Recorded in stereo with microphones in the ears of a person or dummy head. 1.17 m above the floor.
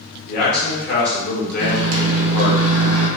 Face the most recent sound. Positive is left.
turn(degrees=-70)  # may be behind; listen again after turning